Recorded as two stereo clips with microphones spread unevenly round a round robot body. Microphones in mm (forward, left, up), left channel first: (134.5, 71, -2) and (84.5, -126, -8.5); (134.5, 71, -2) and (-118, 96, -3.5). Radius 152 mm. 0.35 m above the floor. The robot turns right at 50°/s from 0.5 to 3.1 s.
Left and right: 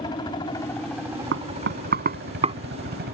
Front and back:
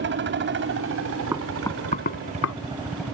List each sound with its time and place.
0.0 s a helicopter: 145° left; by 3.1 s 95° right
1.3 s knocking: 105° right; by 2.5 s 40° right